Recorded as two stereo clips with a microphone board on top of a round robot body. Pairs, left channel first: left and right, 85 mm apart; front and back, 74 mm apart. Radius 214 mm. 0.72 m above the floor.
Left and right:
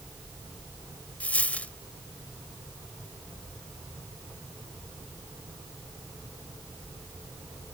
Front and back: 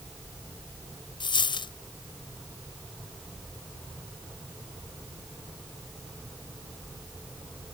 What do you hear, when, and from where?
1.2 s a dropped coin: 15° left